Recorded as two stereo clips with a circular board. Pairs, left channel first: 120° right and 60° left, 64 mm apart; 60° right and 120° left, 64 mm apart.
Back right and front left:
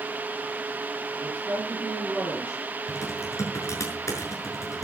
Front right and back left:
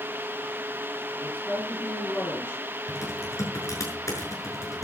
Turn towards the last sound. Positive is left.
turn(degrees=-90)